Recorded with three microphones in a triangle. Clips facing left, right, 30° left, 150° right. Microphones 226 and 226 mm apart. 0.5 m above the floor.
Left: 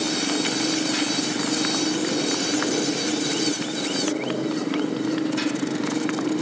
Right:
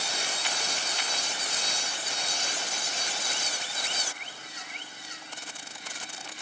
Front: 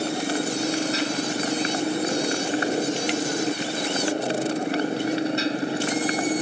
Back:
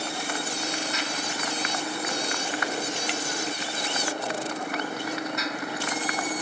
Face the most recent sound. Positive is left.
turn(degrees=90)